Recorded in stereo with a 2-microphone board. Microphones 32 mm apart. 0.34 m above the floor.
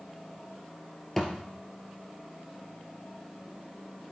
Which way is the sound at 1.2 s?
5° left (ahead or behind).